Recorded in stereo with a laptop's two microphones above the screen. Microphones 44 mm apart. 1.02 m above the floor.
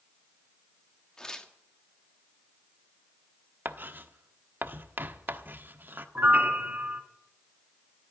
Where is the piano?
45° right (ahead or behind), 1.5 m.